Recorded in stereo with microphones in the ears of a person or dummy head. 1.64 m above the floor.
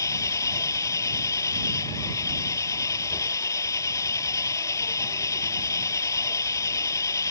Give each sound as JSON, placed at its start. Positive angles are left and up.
{"t": 0.0, "sound": "an engine running", "side_deg": 15}